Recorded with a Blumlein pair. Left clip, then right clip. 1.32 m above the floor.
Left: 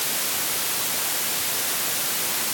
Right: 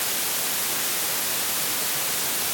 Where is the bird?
I don't hear a bird.